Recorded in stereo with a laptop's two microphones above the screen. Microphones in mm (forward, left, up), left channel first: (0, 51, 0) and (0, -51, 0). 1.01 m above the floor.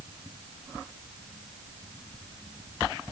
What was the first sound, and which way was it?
Only background noise.